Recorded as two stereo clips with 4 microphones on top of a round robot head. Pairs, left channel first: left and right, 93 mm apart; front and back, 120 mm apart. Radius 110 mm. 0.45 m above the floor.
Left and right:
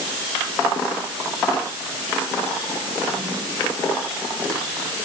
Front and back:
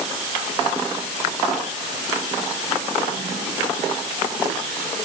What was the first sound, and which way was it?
Only background noise.